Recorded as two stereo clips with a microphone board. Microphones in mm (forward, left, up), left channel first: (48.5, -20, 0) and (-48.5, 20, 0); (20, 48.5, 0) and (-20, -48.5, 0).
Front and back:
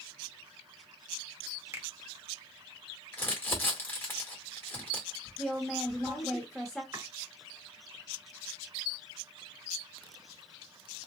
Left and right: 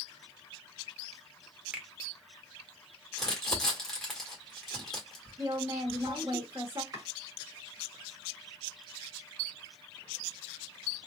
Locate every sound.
1.7 s a finger snap: 175° right, 0.7 m
3.1 s crumpling: 10° right, 1.4 m
5.4 s a woman speaking: 110° right, 0.8 m
6.9 s chopping: 150° right, 1.9 m